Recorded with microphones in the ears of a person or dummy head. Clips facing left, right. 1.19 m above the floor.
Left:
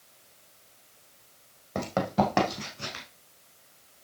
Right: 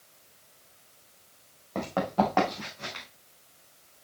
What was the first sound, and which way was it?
Running footsteps, 25° left (ahead or behind).